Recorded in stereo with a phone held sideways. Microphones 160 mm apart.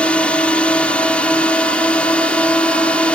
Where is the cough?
No cough in this recording.